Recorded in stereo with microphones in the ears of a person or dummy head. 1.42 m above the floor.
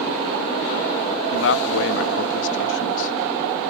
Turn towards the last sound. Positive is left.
turn(degrees=70)  # may be behind; listen again after turning